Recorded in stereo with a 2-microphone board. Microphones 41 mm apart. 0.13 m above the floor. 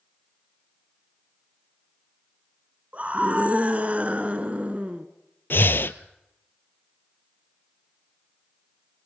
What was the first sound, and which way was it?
A scream, 35° right (ahead or behind).